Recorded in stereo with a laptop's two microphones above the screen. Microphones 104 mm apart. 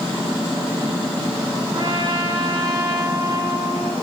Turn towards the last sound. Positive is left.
turn(degrees=-50)  # may be behind; listen again after turning